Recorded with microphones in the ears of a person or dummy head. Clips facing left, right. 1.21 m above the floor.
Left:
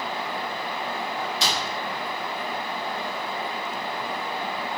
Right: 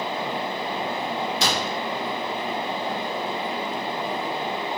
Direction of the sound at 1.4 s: 50° right (ahead or behind).